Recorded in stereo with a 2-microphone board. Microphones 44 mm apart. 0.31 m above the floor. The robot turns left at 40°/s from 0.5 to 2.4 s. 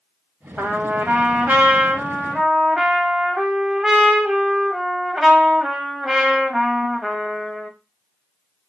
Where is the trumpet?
100° right, 0.7 m; by 7.7 s 170° right, 0.7 m.